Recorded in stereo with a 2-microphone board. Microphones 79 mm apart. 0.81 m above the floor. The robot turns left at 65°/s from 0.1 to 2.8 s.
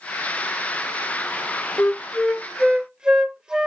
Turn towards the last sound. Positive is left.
turn(degrees=-20)